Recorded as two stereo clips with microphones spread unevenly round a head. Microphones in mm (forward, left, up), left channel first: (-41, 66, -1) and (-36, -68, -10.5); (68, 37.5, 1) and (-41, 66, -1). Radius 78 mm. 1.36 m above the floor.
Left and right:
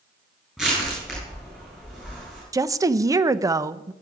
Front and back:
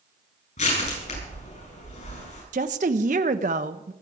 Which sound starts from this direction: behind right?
A woman speaking, at 2.5 s.